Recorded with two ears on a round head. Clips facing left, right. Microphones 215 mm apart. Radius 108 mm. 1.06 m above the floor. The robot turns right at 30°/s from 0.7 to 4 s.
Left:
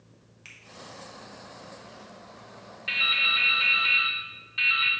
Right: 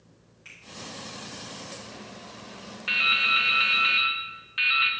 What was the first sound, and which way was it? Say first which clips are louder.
A finger snap: right 1 dB; 65° left (ahead or behind).